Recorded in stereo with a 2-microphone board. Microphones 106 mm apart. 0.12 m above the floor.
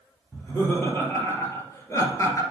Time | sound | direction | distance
0.3 | laughter | 20° left (ahead or behind) | 3 m